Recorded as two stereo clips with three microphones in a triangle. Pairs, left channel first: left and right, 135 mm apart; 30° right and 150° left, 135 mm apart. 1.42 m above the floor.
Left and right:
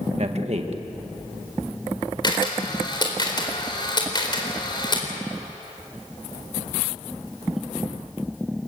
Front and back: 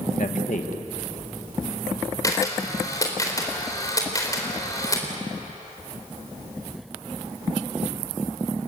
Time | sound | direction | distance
0.2 | a man speaking | 50° right | 1.8 m
2.2 | a camera shutter | 35° left | 4 m